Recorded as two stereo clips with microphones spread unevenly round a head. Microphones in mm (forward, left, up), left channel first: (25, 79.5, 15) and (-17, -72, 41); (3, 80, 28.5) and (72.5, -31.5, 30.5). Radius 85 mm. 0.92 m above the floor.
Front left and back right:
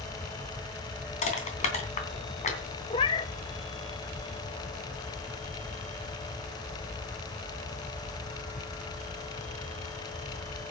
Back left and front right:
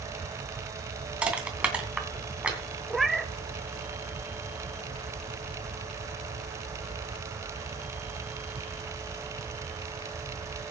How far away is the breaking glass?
I don't hear breaking glass.